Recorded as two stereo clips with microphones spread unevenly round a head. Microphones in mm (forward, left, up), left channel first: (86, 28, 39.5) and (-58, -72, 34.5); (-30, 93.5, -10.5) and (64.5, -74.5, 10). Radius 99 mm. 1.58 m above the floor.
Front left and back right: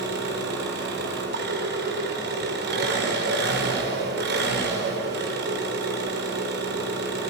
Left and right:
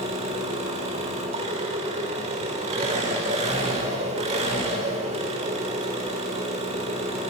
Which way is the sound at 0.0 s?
120° right.